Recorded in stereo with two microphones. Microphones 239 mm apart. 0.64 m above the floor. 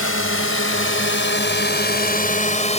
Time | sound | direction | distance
0.0 | a drone | 70° left (ahead or behind) | ?